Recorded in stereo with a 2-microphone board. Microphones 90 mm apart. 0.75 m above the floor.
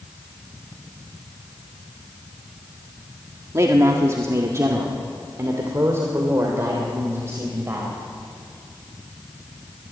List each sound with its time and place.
3.5 s a man speaking: 35° right (ahead or behind), 1.4 m; by 8.0 s 30° right (ahead or behind), 3.5 m